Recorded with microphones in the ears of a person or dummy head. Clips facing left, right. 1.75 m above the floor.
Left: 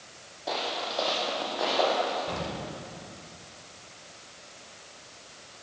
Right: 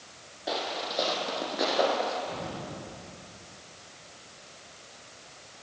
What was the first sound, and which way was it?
Footsteps, 10° right (ahead or behind).